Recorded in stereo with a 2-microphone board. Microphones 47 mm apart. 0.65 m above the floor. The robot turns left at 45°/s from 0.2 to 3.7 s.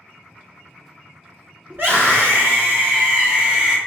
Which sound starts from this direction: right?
A scream, at 1.7 s.